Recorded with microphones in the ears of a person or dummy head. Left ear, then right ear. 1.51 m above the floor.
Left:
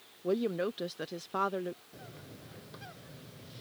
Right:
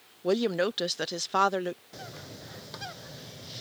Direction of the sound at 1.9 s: 35° right (ahead or behind).